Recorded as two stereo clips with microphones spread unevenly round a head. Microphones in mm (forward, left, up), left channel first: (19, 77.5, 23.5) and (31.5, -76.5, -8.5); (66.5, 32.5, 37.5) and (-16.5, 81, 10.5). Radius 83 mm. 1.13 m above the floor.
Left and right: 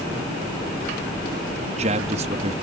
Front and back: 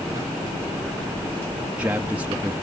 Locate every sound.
1.6 s a man speaking: 135° right